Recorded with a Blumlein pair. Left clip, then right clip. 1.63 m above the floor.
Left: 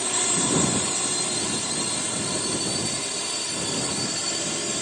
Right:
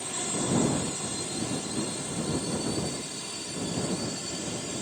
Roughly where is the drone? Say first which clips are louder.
Left 7 dB; ahead left.